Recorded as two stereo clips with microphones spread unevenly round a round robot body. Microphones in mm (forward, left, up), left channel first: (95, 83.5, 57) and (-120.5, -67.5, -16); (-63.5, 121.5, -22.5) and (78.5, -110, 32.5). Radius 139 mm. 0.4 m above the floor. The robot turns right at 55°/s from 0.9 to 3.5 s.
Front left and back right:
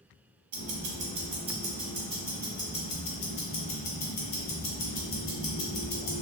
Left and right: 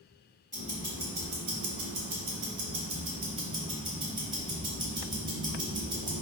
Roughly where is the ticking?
Behind right.